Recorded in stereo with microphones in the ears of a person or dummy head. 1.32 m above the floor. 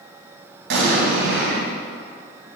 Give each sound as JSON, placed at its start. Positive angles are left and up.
{"t": 0.7, "sound": "an explosion", "side_deg": -75, "distance_m": 3.0}